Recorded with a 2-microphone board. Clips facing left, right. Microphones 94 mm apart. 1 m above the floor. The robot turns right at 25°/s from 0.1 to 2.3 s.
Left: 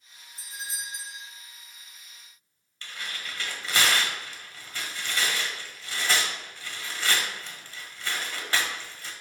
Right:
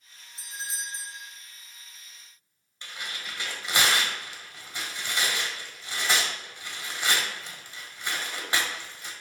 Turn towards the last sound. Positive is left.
turn(degrees=-20)  # may be behind; listen again after turning